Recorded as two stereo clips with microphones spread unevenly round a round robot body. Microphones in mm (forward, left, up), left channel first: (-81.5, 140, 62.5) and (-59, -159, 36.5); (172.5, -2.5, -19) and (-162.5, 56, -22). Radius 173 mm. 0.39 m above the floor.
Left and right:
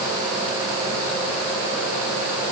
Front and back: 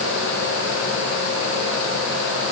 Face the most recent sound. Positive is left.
No sound to turn to.